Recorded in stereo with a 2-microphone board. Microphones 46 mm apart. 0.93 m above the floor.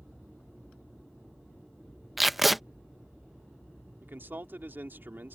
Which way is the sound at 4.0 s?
50° right (ahead or behind).